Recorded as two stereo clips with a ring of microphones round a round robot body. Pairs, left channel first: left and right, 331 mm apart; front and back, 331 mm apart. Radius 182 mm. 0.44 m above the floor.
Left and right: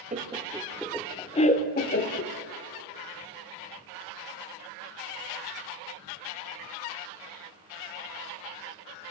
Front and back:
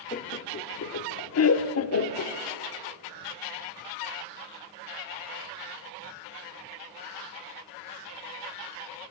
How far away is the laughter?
About 1.0 m.